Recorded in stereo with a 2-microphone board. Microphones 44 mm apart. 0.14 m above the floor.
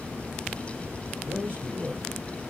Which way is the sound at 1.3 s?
35° right (ahead or behind).